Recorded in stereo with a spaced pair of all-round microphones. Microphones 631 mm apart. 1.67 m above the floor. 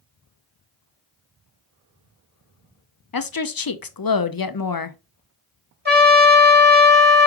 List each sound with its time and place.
3.1 s a woman speaking: 40° left (ahead or behind), 0.6 m
5.8 s a trumpet: 15° right (ahead or behind), 1.6 m